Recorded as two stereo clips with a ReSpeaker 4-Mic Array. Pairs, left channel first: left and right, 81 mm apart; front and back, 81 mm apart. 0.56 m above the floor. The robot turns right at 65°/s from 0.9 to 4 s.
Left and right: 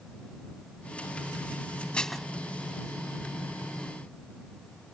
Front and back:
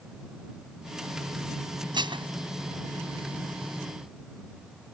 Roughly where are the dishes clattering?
Behind.